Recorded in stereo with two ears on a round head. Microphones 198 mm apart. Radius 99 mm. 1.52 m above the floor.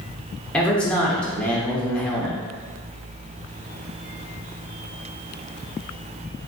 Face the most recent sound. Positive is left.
turn(degrees=5)  # may be behind; listen again after turning